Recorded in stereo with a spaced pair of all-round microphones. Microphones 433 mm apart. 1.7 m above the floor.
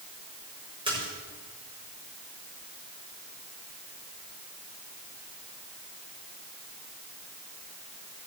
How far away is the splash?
About 5.5 m.